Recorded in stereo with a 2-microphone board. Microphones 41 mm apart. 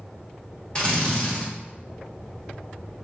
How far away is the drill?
About 1.4 m.